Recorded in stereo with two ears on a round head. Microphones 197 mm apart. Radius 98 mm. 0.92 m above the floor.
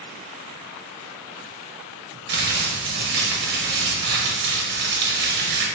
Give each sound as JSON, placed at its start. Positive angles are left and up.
{"t": 2.3, "sound": "crumpling", "side_deg": -50, "distance_m": 0.9}